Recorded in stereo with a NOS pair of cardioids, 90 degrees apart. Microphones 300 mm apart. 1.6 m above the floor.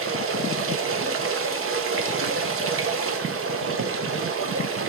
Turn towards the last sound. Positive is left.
turn(degrees=-45)